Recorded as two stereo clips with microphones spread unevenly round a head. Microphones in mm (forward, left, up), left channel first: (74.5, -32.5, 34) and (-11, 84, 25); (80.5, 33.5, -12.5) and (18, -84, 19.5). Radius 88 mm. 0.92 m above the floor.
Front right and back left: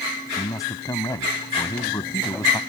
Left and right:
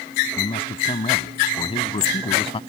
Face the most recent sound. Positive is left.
turn(degrees=15)